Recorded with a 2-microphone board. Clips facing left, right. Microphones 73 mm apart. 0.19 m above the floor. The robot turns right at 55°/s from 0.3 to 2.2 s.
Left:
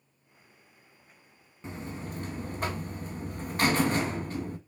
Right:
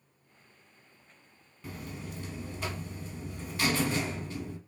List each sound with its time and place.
1.6 s a buzzer: 35° left, 0.6 m; by 4.6 s 65° left, 0.6 m